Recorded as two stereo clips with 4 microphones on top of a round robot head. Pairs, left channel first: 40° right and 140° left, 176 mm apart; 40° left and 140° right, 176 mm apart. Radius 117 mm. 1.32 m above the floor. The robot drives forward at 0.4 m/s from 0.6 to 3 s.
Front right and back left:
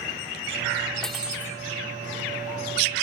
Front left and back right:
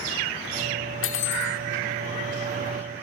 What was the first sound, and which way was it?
Cutlery clinking, 45° left.